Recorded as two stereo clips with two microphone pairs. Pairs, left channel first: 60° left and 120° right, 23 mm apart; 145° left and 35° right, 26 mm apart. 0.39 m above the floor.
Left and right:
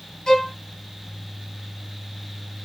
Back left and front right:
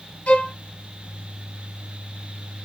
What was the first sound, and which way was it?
A violin, 120° left.